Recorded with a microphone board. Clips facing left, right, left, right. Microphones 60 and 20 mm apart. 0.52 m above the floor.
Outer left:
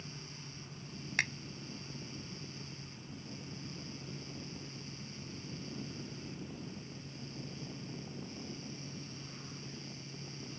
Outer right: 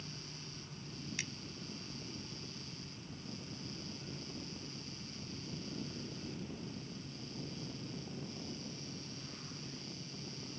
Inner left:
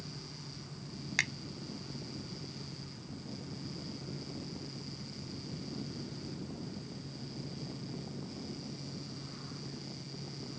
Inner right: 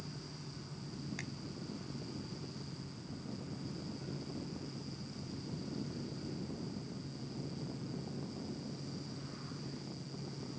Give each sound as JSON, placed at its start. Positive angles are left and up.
{"t": 1.2, "sound": "a finger snap", "side_deg": 60}